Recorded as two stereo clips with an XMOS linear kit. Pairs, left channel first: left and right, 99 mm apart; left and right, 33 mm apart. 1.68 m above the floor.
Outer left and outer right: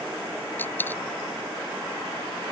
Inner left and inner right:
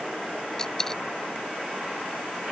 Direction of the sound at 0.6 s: 20° left (ahead or behind).